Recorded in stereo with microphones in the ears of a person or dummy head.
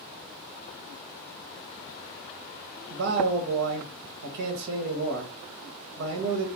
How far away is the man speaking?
About 0.7 m.